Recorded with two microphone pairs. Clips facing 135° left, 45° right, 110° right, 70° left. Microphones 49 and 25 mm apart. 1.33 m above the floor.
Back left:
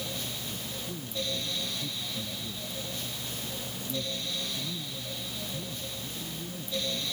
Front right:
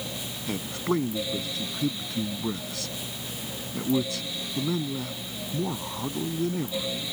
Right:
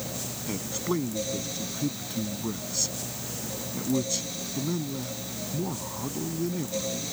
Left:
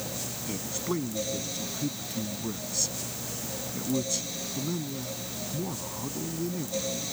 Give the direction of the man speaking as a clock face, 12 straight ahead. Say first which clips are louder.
Front right 10 dB, right 3 dB; 1 o'clock.